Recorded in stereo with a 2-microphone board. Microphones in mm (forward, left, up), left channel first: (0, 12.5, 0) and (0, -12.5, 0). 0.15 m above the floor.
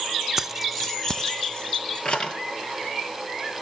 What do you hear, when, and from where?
0.4 s keys jangling: 15° right (ahead or behind), 1.0 m; by 2.4 s 45° left (ahead or behind), 2.5 m